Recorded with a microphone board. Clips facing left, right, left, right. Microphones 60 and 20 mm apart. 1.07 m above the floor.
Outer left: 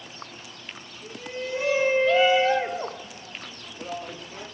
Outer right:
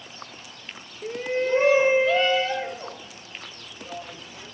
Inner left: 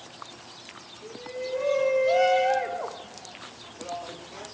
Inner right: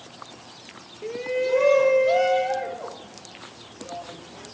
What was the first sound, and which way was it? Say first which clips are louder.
A shout: outer right 9 dB, inner right 10 dB; 65° right (ahead or behind).